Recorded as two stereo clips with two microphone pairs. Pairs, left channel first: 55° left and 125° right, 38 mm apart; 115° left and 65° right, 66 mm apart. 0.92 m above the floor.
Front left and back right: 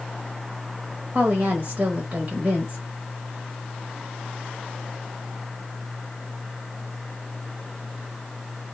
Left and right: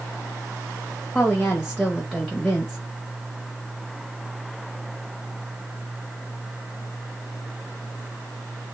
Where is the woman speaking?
160° right, 0.8 m.